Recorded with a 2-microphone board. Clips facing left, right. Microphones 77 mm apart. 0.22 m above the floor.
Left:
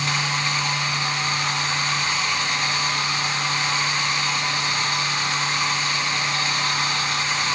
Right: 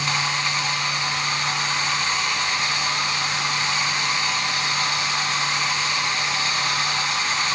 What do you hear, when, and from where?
Only background noise.